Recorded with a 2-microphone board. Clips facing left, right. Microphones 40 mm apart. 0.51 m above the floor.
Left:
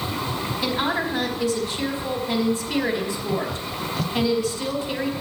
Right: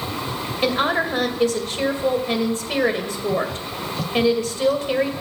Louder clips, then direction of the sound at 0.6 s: Right 5 dB; 55° right (ahead or behind).